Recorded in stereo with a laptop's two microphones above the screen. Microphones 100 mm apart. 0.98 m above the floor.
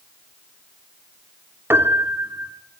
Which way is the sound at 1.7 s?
25° right (ahead or behind).